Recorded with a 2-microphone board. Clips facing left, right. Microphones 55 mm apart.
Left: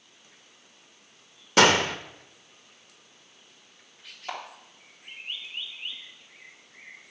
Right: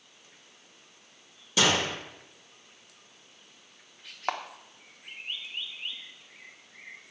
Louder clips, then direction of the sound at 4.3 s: Right 5 dB; 65° right (ahead or behind).